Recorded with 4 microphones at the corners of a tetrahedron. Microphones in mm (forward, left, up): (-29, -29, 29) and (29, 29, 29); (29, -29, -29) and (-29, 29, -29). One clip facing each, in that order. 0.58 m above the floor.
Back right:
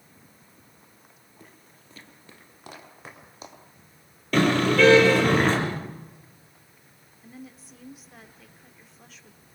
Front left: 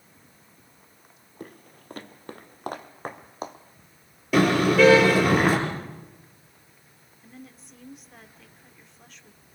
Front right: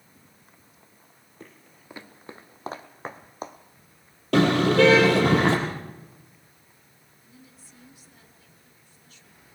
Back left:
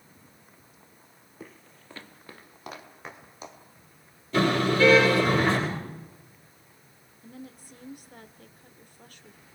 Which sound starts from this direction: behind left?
A woman speaking, at 7.2 s.